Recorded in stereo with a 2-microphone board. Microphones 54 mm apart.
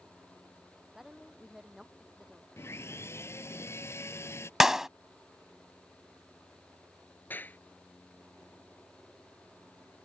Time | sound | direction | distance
0.9 | a woman speaking | 5° right (ahead or behind) | ?
2.6 | sawing | 50° left (ahead or behind) | ?
4.6 | a clap | 10° right (ahead or behind) | ?
7.3 | a clap | 35° left (ahead or behind) | ?